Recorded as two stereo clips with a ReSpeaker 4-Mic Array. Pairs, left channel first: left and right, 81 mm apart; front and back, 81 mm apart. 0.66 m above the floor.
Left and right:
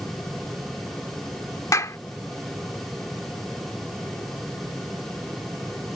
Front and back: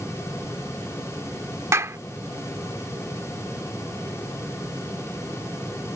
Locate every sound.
1.7 s a clap: 135° left